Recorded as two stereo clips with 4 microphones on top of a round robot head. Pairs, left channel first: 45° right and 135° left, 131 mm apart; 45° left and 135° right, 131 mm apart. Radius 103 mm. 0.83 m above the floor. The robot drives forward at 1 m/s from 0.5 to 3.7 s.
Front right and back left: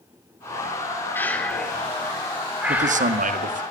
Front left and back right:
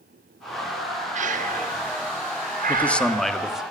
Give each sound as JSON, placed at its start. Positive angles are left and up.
{"t": 1.1, "sound": "breathing", "azimuth_deg": -120, "distance_m": 2.0}
{"t": 2.7, "sound": "a man speaking", "azimuth_deg": 120, "distance_m": 1.9}